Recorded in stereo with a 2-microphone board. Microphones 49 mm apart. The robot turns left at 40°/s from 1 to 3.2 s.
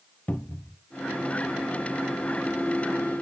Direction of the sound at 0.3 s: 35° left (ahead or behind).